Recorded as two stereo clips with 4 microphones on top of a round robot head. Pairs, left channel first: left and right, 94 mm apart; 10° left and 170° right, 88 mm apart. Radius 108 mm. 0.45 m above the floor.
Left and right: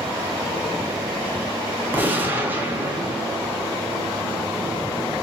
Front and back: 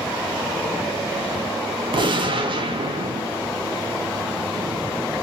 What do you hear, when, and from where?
1.9 s a gunshot: 160° right, 0.6 m